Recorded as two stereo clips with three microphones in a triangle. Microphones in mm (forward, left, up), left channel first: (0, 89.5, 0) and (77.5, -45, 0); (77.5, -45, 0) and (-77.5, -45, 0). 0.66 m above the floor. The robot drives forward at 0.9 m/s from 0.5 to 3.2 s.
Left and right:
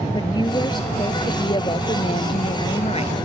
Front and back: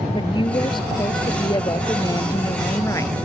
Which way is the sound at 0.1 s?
60° left.